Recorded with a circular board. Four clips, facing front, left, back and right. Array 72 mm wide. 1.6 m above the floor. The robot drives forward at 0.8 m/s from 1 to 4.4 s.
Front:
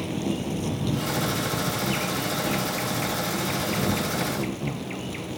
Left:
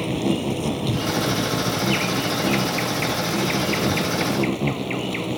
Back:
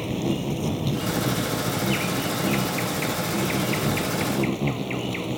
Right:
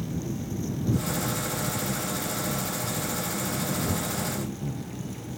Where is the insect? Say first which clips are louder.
Left 10 dB, back 2 dB; 100° left; by 5.4 s 110° left.